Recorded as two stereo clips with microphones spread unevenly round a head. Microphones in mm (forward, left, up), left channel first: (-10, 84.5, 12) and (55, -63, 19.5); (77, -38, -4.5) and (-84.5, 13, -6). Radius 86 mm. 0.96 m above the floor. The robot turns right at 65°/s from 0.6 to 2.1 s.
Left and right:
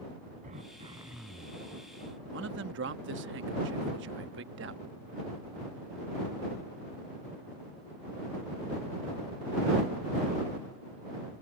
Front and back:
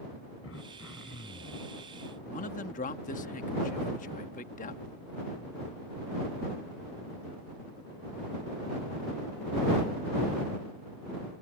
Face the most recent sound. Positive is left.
turn(degrees=-60)